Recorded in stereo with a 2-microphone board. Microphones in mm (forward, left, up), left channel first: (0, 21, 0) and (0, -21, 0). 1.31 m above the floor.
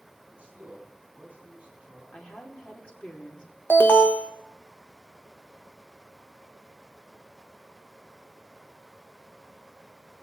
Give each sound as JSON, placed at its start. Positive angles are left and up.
{"t": 0.3, "sound": "a man speaking", "side_deg": -25, "distance_m": 9.0}
{"t": 2.1, "sound": "a woman speaking", "side_deg": 35, "distance_m": 3.5}
{"t": 3.7, "sound": "an alarm", "side_deg": 55, "distance_m": 1.4}